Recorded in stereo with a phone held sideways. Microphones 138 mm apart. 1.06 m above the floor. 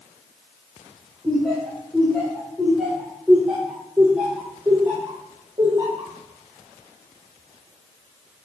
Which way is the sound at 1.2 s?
5° left (ahead or behind).